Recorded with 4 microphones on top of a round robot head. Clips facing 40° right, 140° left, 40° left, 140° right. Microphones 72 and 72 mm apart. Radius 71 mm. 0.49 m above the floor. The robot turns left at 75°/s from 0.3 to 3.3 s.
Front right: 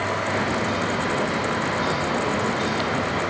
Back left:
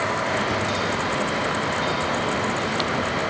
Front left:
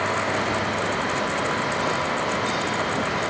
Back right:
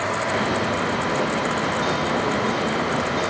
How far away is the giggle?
I don't hear a giggle.